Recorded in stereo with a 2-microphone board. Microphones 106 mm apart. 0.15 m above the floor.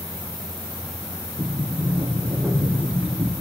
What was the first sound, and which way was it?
A sliding door, 15° right (ahead or behind).